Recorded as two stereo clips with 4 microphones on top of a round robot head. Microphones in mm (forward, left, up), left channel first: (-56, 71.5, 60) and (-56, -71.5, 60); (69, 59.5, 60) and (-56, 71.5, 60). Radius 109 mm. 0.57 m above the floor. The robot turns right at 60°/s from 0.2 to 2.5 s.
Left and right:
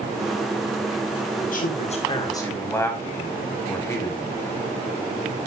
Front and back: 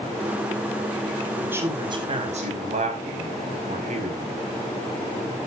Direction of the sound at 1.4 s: 95° left.